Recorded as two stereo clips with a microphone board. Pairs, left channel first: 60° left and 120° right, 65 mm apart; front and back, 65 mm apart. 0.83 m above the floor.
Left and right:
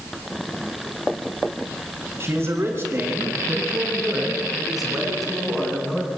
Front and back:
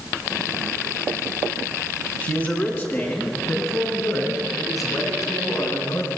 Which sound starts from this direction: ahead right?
A man speaking, at 2.2 s.